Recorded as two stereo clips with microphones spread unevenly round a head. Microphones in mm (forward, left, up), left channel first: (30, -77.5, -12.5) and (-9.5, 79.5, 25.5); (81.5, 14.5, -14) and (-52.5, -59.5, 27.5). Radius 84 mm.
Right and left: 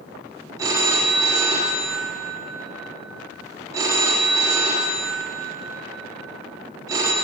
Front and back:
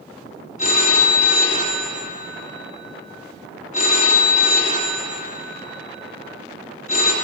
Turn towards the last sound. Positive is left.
turn(degrees=70)